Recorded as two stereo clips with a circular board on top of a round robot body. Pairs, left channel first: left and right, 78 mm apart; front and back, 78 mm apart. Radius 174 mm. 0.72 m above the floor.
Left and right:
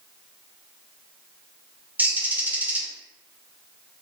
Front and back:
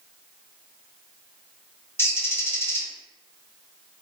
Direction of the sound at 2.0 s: 35° right.